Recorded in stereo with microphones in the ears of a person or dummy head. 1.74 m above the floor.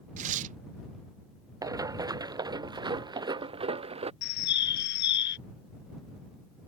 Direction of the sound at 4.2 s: 60° left (ahead or behind).